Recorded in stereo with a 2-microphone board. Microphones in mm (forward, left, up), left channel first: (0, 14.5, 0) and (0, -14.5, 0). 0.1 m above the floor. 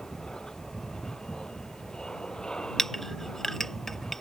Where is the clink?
10° left (ahead or behind).